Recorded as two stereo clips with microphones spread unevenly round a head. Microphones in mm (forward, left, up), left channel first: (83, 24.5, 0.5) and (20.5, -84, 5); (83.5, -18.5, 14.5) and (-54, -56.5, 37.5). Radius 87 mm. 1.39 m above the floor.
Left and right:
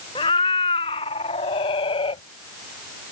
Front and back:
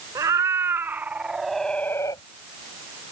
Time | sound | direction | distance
0.1 | a cat meowing | 125° left | ?